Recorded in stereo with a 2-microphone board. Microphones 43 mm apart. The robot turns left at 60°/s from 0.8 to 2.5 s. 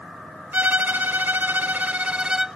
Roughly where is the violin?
Ahead right.